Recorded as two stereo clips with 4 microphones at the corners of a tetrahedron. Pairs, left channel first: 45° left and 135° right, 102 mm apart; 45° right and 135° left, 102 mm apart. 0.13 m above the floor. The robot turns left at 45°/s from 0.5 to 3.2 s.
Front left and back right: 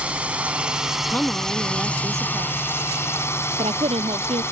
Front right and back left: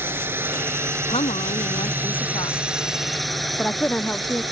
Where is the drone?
165° left; by 4.5 s 45° left.